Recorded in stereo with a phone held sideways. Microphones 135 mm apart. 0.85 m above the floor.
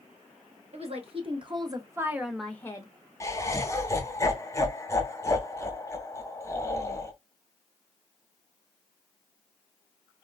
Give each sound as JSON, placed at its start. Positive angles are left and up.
{"t": 0.7, "sound": "a woman speaking", "side_deg": -50, "distance_m": 1.1}
{"t": 3.2, "sound": "laughter", "side_deg": 20, "distance_m": 0.8}